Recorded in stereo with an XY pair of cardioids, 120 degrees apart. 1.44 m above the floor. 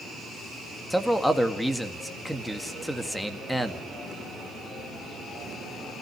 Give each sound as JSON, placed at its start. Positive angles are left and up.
{"t": 0.9, "sound": "a man speaking", "azimuth_deg": 5, "distance_m": 1.9}